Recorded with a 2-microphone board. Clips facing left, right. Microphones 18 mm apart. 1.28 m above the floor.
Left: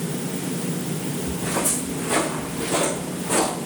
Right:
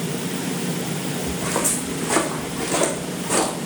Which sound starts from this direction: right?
Footsteps, at 1.3 s.